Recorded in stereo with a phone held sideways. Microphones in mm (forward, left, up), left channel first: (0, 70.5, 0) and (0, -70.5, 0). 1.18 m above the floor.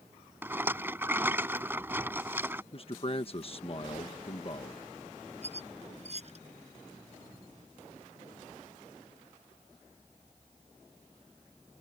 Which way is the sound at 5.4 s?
50° right (ahead or behind).